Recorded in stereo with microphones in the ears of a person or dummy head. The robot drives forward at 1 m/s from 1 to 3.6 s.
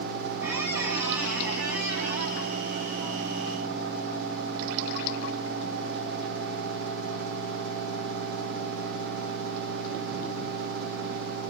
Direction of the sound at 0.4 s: 10° right (ahead or behind).